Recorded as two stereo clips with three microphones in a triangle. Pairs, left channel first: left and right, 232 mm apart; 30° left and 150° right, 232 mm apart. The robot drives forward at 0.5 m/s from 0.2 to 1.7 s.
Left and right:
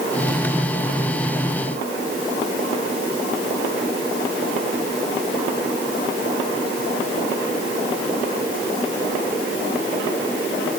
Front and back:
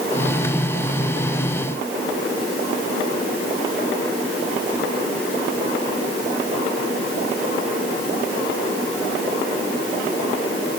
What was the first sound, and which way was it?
Only background noise.